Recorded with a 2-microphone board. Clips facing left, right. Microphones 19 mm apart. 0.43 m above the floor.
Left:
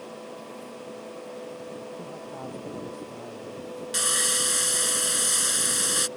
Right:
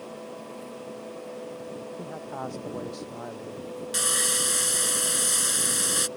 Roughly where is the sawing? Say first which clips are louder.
Left 1 dB; centre.